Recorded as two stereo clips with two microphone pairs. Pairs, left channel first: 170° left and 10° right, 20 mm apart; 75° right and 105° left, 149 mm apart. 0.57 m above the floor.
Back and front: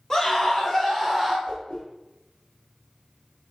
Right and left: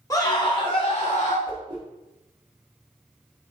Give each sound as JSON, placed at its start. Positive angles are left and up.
{"t": 0.1, "sound": "a scream", "azimuth_deg": -140, "distance_m": 1.6}
{"t": 1.5, "sound": "a whoosh", "azimuth_deg": 165, "distance_m": 1.4}